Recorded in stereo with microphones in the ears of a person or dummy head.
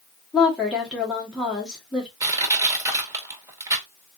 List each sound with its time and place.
0.3 s a woman speaking: centre (ahead or behind), 1.4 m
2.2 s crushing: 15° right (ahead or behind), 1.3 m